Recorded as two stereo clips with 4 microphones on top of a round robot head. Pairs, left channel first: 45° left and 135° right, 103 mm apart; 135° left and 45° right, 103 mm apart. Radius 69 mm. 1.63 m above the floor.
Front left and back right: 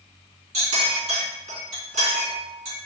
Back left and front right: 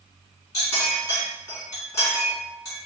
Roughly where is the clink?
Behind.